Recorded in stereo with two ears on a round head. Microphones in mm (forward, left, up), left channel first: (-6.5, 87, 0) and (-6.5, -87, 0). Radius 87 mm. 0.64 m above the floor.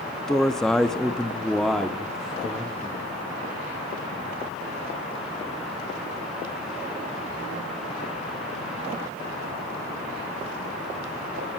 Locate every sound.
0.3 s a man speaking: centre (ahead or behind), 1.1 m